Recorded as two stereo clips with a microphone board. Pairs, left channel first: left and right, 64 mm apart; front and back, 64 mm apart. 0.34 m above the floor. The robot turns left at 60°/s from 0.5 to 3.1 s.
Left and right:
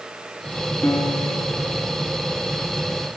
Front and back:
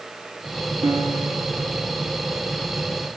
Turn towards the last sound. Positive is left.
turn(degrees=15)